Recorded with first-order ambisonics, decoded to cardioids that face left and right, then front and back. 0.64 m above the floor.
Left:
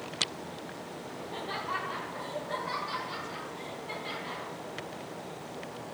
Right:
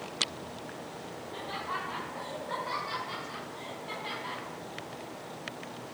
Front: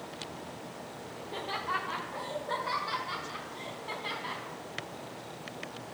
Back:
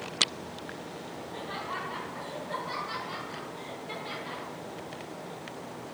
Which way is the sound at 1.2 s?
25° left.